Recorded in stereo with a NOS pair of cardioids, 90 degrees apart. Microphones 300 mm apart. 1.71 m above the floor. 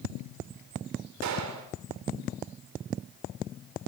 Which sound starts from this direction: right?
A gunshot, at 1.2 s.